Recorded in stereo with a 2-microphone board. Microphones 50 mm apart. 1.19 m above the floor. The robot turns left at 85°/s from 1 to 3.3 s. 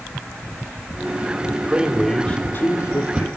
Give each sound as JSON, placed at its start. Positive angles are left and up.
{"t": 1.7, "sound": "a man speaking", "azimuth_deg": -150, "distance_m": 3.5}